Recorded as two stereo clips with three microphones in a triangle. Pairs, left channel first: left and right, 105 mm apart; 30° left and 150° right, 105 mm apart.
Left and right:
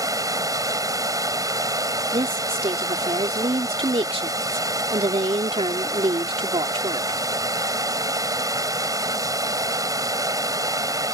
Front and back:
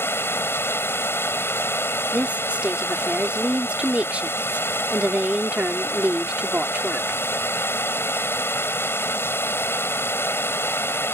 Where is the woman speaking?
75° right.